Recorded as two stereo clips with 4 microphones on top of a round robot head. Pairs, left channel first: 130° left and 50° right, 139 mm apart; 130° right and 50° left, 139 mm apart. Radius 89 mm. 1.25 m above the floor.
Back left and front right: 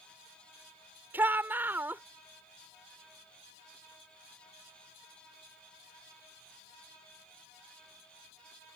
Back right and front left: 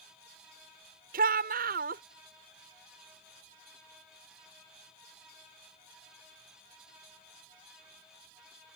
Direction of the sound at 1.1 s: 25° left.